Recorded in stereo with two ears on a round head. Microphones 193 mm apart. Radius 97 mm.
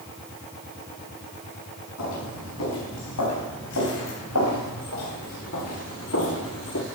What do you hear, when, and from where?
2.0 s footsteps: 85° left, 7 m; by 6.8 s 60° left (ahead or behind), 2.5 m